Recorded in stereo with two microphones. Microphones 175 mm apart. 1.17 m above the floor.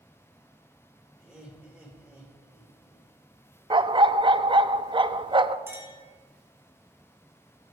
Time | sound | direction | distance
1.2 | laughter | 5° right (ahead or behind) | 4.5 m
3.7 | a dog barking | 30° right (ahead or behind) | 0.5 m
5.7 | a clink | 15° right (ahead or behind) | 4.5 m